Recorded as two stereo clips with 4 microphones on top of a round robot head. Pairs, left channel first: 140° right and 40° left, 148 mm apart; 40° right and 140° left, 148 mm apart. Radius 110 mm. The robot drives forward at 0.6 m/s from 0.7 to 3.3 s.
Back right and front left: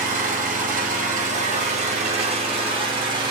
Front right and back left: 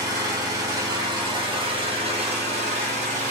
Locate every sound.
0.0 s an engine running: 75° left, 3 m; by 3.3 s 105° left, 3 m